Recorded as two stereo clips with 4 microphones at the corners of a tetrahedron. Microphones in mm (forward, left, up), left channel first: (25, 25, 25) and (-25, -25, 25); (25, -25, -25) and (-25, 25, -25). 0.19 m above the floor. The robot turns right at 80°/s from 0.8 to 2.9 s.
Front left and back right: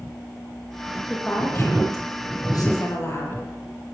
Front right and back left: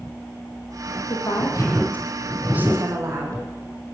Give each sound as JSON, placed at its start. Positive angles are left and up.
{"t": 1.1, "sound": "a woman speaking", "azimuth_deg": -50, "distance_m": 7.5}